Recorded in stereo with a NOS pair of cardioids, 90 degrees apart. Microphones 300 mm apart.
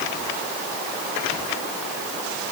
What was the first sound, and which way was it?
Only background noise.